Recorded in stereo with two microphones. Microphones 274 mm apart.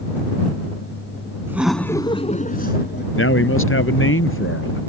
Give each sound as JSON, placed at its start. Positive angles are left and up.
{"t": 1.5, "sound": "laughter", "side_deg": -10}
{"t": 3.1, "sound": "a man speaking", "side_deg": 50}